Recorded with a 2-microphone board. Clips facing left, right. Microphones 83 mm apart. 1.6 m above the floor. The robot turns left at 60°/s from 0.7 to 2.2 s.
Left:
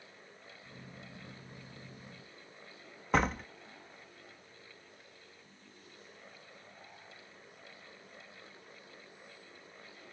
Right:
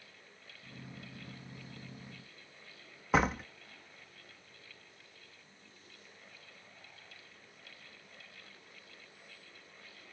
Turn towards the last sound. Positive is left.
turn(degrees=-5)  # may be behind; listen again after turning